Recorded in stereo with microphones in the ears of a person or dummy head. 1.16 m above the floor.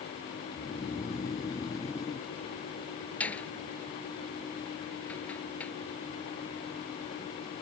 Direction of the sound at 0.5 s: 15° left (ahead or behind).